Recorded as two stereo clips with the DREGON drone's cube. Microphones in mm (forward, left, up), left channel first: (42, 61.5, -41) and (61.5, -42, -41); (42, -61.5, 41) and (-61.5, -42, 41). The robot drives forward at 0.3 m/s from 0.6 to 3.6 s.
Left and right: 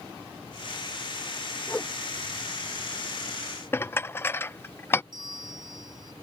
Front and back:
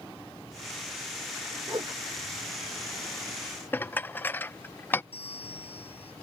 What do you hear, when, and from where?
1.7 s a whoosh: 170° left
3.7 s dishes clattering: 45° left
5.1 s a bell: 30° right